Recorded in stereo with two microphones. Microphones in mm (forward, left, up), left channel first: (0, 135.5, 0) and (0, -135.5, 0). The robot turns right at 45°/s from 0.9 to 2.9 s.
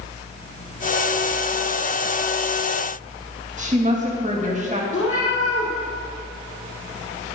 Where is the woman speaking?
25° right (ahead or behind), 1.9 m.